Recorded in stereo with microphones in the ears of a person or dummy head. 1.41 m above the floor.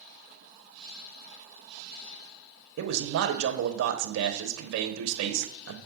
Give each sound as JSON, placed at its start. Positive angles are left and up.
{"t": 2.8, "sound": "a man speaking", "side_deg": -70, "distance_m": 1.2}